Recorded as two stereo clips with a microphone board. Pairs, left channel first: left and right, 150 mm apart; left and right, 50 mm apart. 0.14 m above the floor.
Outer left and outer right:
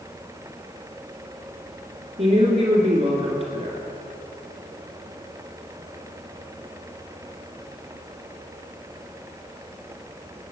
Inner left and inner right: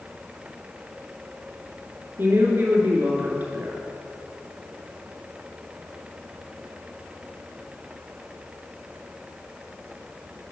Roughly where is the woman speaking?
Right.